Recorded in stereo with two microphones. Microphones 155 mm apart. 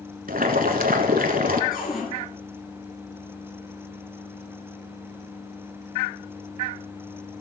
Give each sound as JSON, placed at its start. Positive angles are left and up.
{"t": 0.3, "sound": "boiling", "side_deg": -70, "distance_m": 0.9}
{"t": 1.7, "sound": "a cupboard door", "side_deg": 70, "distance_m": 4.0}